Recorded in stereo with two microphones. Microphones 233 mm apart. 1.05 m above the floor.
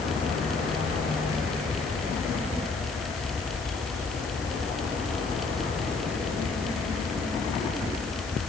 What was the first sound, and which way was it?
Only background noise.